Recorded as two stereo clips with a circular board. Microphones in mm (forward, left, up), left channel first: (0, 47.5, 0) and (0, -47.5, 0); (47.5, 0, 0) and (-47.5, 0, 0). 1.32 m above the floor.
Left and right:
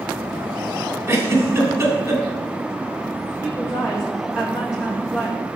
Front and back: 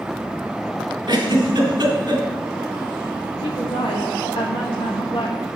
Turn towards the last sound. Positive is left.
turn(degrees=-10)